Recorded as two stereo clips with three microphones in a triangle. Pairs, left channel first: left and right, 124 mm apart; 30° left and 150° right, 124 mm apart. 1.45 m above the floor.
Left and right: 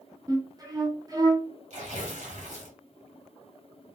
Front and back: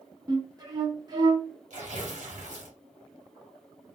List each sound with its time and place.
0.3 s a flute: 125° right, 0.9 m
1.7 s tearing paper: 120° right, 1.0 m